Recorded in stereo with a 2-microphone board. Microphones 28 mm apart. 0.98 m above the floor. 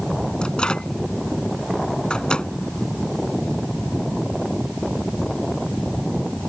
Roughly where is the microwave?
Left.